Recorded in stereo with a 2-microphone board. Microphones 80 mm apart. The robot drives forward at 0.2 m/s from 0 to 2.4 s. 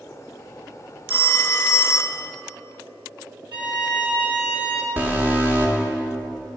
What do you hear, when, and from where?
1.1 s a phone ringing: 30° left (ahead or behind), 0.7 m
3.5 s a violin: 80° right, 3.5 m
5.0 s an alarm: 20° right (ahead or behind), 1.3 m